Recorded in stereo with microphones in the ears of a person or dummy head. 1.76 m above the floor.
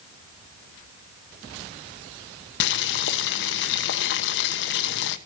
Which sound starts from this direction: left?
Boiling, at 2.6 s.